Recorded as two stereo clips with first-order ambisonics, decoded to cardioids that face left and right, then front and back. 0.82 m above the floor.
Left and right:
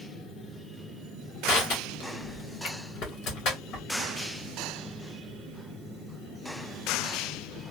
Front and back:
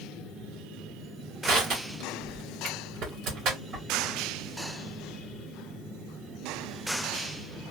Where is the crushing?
135° left, 1.9 m.